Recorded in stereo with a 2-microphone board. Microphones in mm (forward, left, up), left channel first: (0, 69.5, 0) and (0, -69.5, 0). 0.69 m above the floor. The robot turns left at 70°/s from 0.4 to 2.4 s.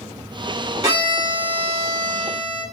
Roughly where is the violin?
Ahead right.